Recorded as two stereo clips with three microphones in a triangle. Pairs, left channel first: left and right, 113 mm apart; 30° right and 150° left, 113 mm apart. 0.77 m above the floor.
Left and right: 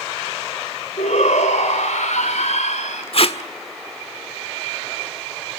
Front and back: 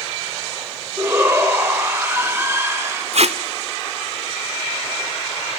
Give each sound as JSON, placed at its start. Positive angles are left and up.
{"t": 1.0, "sound": "a shout", "azimuth_deg": 80, "distance_m": 3.0}
{"t": 3.1, "sound": "tape being pulled", "azimuth_deg": 125, "distance_m": 1.4}